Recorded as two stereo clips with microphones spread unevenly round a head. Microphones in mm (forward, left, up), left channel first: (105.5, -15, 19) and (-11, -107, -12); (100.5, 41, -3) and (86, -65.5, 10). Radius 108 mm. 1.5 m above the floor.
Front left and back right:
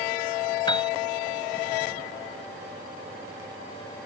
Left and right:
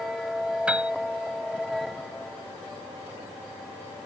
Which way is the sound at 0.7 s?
20° right.